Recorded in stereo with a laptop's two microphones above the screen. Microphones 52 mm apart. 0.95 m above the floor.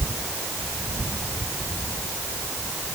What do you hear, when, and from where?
Only background noise.